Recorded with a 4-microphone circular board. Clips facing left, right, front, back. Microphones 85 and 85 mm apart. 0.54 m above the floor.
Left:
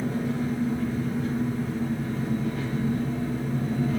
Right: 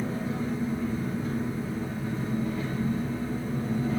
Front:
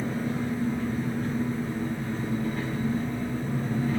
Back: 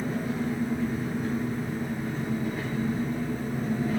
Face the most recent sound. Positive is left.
turn(degrees=100)